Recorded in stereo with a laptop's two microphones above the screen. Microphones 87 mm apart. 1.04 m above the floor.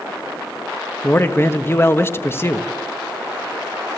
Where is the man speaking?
30° left (ahead or behind), 1.2 m.